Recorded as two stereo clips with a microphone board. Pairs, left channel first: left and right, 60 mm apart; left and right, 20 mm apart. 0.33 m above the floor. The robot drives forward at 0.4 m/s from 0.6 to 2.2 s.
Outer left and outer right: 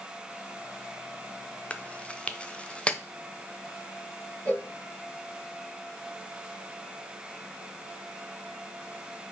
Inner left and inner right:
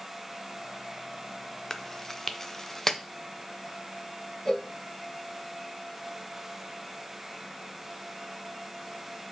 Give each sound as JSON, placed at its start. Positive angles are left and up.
{"t": 1.7, "sound": "chewing", "side_deg": 25, "distance_m": 0.5}
{"t": 4.5, "sound": "a cowbell", "side_deg": 30, "distance_m": 2.0}